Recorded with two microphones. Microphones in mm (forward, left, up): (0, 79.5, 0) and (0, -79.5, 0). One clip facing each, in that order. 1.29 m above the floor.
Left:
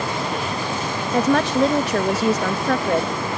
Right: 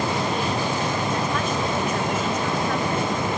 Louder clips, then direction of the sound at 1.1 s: Left 7 dB; 80° left.